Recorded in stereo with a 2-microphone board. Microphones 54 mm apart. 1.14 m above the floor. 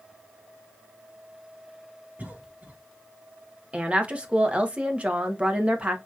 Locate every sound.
2.2 s a cough: 30° right (ahead or behind), 0.8 m
3.7 s a woman speaking: 20° right (ahead or behind), 1.0 m